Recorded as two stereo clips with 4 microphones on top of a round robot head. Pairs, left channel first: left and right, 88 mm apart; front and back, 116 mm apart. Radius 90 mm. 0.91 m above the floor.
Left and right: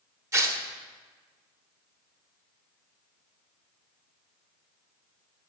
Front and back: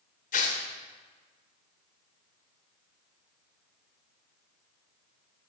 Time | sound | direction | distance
0.3 | tearing paper | 35° right | 0.8 m